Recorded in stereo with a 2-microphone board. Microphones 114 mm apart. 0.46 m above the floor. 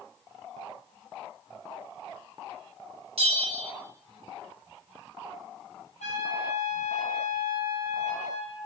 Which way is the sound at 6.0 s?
85° left.